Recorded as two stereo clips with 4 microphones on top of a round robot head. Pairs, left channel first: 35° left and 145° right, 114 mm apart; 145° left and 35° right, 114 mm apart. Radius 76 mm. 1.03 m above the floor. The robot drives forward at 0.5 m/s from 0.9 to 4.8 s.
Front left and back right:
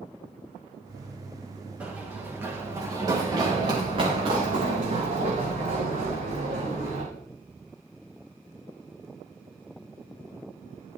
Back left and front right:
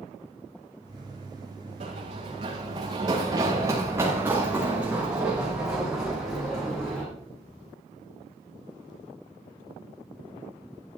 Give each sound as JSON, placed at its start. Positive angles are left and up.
{"t": 1.8, "sound": "running footsteps", "azimuth_deg": -70, "distance_m": 7.0}